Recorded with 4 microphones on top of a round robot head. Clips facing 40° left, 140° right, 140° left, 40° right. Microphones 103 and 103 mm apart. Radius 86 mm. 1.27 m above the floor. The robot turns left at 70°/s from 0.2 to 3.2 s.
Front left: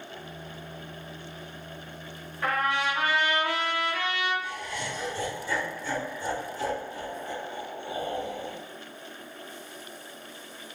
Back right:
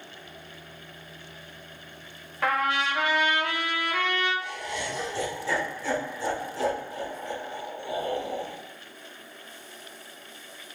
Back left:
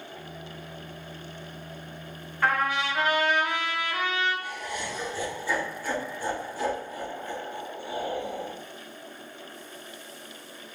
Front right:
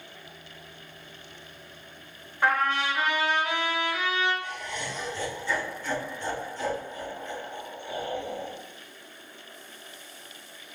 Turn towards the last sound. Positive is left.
turn(degrees=-140)